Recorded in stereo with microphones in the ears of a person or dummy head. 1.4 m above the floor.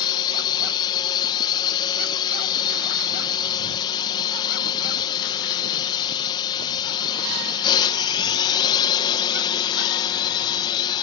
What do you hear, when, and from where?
0.0 s a drone: 20° left (ahead or behind)